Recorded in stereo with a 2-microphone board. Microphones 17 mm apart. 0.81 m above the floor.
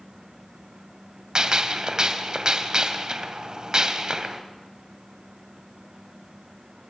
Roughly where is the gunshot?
Right.